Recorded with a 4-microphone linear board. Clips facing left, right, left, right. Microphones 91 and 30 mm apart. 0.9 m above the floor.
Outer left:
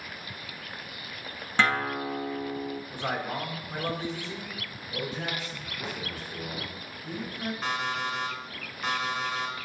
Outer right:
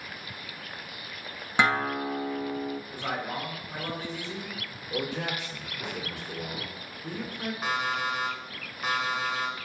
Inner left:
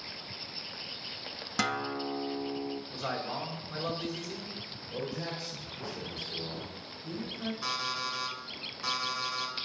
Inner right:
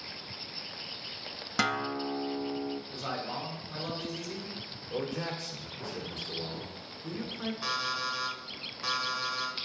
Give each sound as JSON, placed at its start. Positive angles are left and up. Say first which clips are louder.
{"t": 1.6, "sound": "a guitar", "louder": "outer right 1 dB, inner right 2 dB", "side_deg": -15, "distance_m": 0.6}
{"t": 2.9, "sound": "a man speaking", "louder": "outer left 1 dB, inner left 1 dB", "side_deg": 20, "distance_m": 2.0}
{"t": 4.9, "sound": "a man speaking", "louder": "outer right 2 dB, inner right 3 dB", "side_deg": -75, "distance_m": 2.0}
{"t": 7.6, "sound": "an alarm clock", "louder": "outer right 2 dB, inner right 2 dB", "side_deg": -5, "distance_m": 1.9}